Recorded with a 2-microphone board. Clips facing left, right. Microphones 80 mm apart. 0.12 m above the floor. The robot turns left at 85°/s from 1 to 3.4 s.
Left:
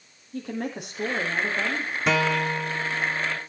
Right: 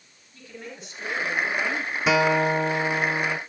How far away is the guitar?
About 1.0 m.